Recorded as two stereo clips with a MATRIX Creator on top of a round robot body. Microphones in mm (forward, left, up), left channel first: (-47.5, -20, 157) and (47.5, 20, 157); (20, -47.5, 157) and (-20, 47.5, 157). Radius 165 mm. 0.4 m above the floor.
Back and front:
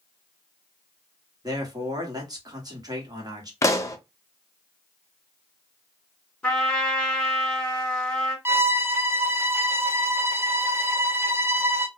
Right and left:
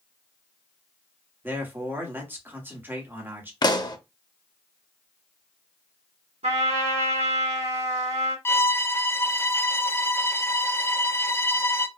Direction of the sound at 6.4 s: 120° left.